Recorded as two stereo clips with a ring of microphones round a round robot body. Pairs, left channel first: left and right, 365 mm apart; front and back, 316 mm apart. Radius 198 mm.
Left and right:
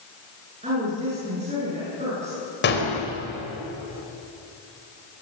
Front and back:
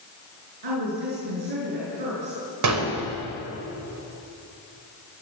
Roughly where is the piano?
No piano in this recording.